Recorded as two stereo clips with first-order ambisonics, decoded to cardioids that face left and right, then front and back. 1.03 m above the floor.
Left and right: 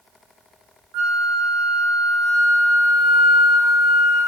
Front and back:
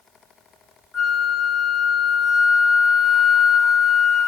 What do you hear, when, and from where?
0.9 s a flute: 65° right, 0.6 m